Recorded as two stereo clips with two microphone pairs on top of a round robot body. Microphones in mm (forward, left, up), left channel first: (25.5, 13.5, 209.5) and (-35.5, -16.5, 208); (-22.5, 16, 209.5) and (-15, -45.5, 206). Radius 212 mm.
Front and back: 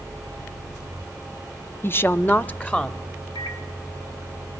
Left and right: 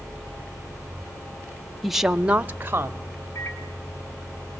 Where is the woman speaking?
Straight ahead, 1.0 m; by 3.1 s 45° right, 1.5 m.